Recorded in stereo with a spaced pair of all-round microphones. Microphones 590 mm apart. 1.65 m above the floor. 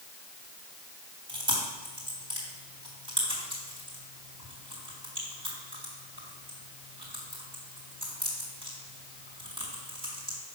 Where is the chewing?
65° right (ahead or behind), 3.5 m.